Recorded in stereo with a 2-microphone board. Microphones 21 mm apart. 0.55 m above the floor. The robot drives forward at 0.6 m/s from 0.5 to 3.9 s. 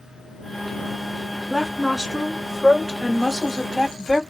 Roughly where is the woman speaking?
Centre.